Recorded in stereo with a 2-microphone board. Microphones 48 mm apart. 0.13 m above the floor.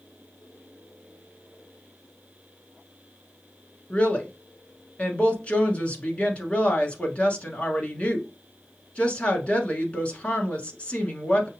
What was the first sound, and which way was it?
A woman speaking, 30° left (ahead or behind).